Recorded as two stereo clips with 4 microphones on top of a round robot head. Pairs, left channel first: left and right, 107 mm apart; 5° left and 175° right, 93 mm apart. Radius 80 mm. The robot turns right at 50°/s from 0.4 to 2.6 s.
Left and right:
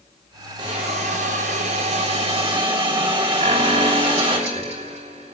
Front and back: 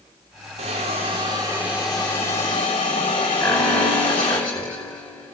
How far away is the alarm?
About 10 m.